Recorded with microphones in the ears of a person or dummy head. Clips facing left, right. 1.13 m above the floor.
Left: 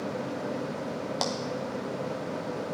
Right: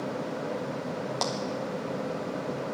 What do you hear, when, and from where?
1.2 s a clap: 5° left (ahead or behind), 0.7 m